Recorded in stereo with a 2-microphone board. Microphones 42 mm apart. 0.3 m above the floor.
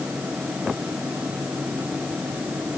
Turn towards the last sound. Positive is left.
No sound to turn to.